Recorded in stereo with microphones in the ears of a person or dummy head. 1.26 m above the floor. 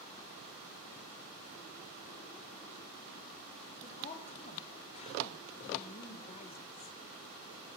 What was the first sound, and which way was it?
A woman speaking, 35° left (ahead or behind).